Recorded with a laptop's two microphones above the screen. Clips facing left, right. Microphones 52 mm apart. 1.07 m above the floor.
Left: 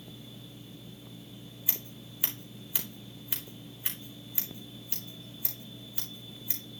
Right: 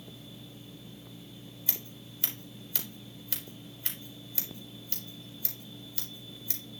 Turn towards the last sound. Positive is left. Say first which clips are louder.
# left 1 dB
turn(degrees=15)  # may be behind; listen again after turning